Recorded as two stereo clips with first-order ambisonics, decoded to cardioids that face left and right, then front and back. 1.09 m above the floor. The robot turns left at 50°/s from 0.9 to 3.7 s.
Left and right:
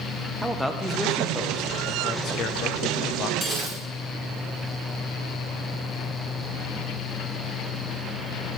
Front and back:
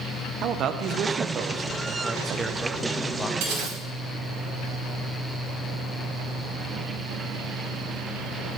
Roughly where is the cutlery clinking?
Behind.